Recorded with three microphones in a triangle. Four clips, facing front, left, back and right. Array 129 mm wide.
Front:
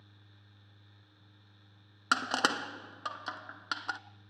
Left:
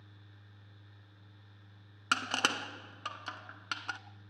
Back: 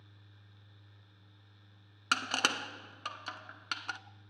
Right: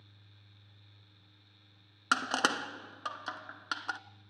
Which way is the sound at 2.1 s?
35° right.